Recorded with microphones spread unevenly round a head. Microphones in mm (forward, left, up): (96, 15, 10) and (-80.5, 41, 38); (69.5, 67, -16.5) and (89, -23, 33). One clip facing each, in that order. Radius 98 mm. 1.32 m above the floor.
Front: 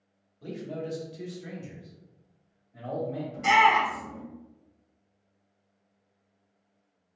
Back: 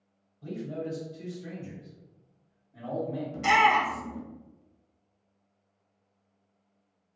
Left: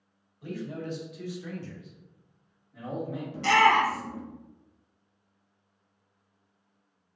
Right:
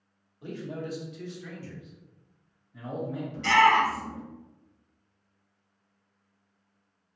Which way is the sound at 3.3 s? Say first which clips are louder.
Front 1 dB, even; 115° left.